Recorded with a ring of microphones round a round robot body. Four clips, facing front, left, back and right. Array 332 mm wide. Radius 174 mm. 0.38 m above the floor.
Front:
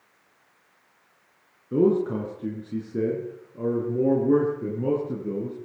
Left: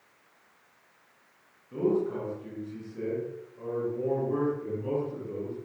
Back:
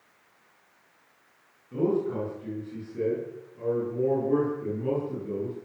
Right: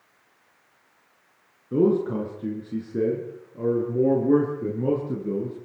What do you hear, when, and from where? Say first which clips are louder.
1.7 s a man speaking: right 6 dB, front 5 dB; 45° right, 7 m; by 5.5 s 55° right, 8.5 m